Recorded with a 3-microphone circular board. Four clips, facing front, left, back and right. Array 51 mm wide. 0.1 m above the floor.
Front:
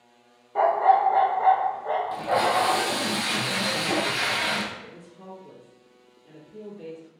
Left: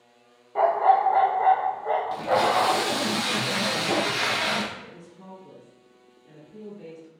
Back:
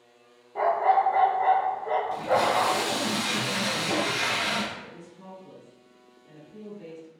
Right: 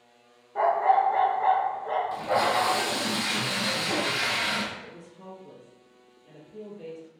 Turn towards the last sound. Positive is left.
turn(degrees=10)